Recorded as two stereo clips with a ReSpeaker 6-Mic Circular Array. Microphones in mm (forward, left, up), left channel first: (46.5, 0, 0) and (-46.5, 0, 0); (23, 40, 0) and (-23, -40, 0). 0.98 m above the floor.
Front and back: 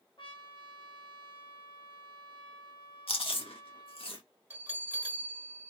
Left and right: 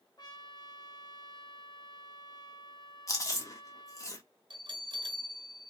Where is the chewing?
10° left, 1.0 m.